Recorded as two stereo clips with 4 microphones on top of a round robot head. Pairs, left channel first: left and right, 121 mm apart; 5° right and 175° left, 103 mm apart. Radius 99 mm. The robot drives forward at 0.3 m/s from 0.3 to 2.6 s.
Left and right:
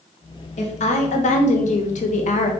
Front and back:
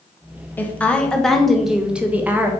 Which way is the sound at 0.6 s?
65° left.